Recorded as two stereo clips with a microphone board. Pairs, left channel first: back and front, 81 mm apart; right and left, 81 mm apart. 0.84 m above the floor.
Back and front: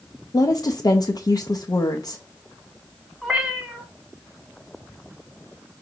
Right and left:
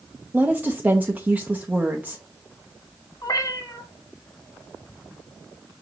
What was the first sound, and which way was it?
A woman speaking, 155° left.